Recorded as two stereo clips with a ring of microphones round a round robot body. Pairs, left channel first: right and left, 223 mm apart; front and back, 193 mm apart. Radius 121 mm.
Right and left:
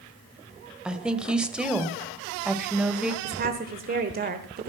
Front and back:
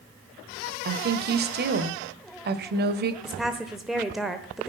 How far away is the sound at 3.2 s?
About 1.3 m.